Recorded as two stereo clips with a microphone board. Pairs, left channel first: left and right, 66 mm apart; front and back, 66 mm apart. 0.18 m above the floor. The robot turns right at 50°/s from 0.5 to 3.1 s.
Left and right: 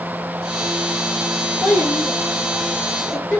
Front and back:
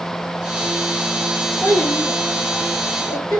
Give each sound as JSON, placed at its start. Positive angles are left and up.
{"t": 1.6, "sound": "a child speaking", "azimuth_deg": -75, "distance_m": 2.5}